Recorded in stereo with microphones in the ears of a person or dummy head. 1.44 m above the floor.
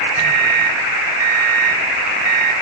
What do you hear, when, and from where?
0.2 s a microwave: 80° right, 0.7 m